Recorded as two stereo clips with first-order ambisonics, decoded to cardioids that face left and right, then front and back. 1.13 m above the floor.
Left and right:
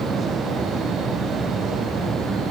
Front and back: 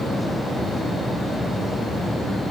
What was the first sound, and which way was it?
Only background noise.